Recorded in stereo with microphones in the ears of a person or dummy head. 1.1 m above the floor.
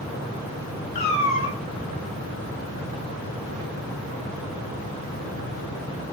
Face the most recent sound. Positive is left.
turn(degrees=35)  # may be behind; listen again after turning